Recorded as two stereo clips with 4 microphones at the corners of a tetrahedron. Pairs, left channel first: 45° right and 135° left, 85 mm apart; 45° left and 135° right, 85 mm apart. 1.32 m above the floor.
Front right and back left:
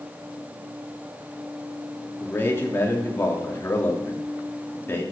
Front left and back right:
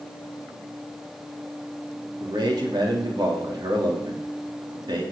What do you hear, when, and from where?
2.2 s a man speaking: 105° right, 2.5 m